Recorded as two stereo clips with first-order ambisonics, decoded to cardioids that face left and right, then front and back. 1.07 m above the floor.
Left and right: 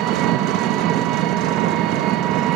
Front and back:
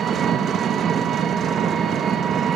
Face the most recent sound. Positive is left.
turn(degrees=-120)